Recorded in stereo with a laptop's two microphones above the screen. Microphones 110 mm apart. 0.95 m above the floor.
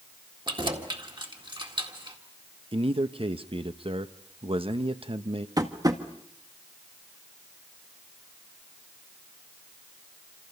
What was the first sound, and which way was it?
Keys jangling, 45° right (ahead or behind).